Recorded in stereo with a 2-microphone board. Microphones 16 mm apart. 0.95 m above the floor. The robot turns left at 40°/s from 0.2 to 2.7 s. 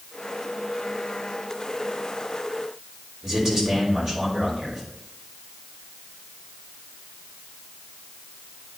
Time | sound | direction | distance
3.2 | a man speaking | 40° right (ahead or behind) | 3.5 m